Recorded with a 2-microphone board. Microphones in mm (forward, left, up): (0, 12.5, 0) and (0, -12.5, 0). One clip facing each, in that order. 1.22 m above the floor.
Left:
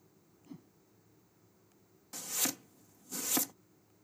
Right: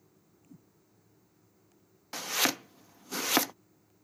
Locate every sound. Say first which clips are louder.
0.5 s a whoosh: left 5 dB; 55° left (ahead or behind)
2.1 s chopping: right 8 dB; 50° right (ahead or behind)